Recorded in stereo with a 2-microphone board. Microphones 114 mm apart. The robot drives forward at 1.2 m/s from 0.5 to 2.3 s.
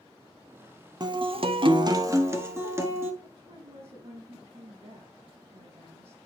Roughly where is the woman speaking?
Right.